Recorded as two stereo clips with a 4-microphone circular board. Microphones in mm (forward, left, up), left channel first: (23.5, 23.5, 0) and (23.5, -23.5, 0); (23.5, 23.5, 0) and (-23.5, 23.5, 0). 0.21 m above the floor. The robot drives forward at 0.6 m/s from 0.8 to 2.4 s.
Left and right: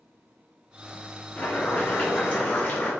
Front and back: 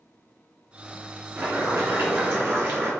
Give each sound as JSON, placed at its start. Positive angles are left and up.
{"t": 1.4, "sound": "boiling", "azimuth_deg": 145, "distance_m": 2.5}